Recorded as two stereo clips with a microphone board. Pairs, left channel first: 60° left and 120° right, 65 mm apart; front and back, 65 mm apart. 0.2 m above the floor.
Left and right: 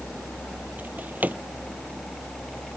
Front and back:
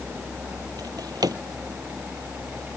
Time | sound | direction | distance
0.8 | a drawer | straight behind | ?